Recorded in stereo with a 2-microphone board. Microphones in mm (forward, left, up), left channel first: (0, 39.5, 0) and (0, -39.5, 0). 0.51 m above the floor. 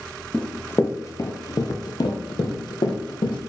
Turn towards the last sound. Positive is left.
turn(degrees=75)  # may be behind; listen again after turning